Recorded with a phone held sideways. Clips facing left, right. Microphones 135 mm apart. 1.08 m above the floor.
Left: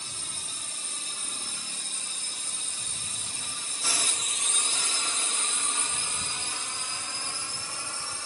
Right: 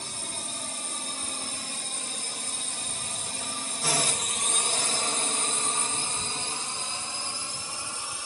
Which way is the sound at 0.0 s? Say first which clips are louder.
Right 6 dB; 55° right (ahead or behind).